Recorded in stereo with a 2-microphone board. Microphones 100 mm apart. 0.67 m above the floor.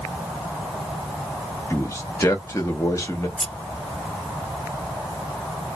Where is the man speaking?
35° left (ahead or behind), 1.0 m.